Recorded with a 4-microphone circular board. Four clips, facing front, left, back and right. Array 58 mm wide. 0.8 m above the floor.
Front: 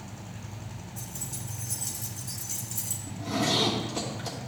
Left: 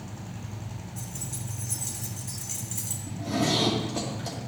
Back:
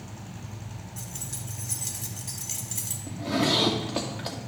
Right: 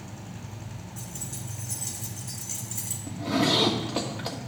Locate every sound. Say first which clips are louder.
1.0 s keys jangling: even, even; straight behind, 1.7 m
3.1 s a zipper: right 2 dB, back 3 dB; 140° right, 1.6 m